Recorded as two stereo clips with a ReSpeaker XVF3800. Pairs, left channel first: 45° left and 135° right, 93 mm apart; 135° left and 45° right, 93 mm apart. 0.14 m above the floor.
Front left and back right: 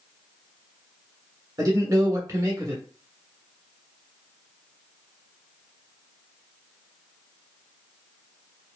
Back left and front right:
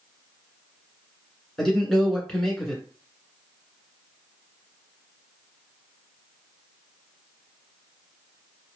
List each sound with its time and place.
1.6 s a man speaking: 140° right, 1.3 m